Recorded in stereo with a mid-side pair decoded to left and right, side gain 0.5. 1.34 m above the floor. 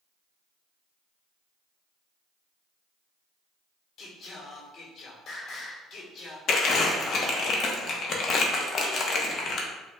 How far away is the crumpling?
About 0.9 m.